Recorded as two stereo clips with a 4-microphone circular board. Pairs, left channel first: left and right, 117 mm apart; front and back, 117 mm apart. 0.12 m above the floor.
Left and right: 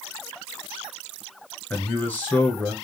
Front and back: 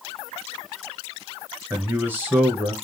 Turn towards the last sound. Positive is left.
turn(degrees=135)